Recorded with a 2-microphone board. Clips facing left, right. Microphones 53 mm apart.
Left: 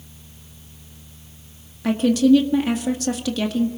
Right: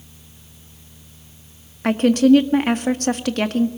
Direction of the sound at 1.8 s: 55° right (ahead or behind).